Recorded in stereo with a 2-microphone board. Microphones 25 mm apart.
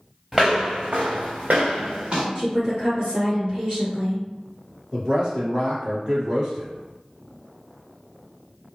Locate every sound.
0.3 s footsteps: 15° right (ahead or behind), 0.8 m; by 2.2 s 50° right (ahead or behind), 1.2 m
2.4 s a woman speaking: 30° right (ahead or behind), 1.8 m
4.9 s a man speaking: 35° right (ahead or behind), 1.9 m